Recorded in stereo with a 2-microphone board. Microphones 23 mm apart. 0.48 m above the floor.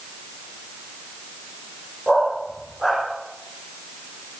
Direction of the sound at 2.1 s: 15° right (ahead or behind).